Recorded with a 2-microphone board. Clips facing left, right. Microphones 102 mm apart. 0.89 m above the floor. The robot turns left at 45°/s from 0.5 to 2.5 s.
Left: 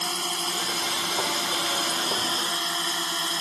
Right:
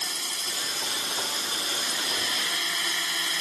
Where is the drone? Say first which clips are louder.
Left 8 dB; 120° left; by 3.4 s 30° left.